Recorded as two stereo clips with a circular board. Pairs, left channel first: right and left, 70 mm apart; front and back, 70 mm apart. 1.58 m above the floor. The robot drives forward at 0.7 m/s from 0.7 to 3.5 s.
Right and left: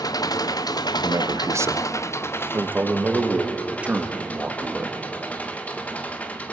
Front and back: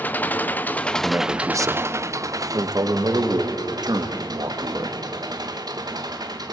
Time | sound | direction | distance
0.0 | an engine running | 65° right | 0.7 m
1.0 | a man speaking | 125° left | 0.9 m